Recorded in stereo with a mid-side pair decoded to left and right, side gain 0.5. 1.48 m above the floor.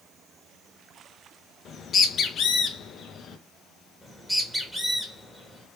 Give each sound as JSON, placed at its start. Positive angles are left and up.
{"t": 1.6, "sound": "a bird", "azimuth_deg": 50, "distance_m": 0.9}
{"t": 4.0, "sound": "a bird", "azimuth_deg": 0, "distance_m": 1.9}